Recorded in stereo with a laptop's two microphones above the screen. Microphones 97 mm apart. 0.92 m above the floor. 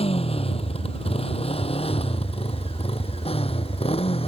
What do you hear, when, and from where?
0.0 s a motorcycle: 90° left; by 4.3 s 80° left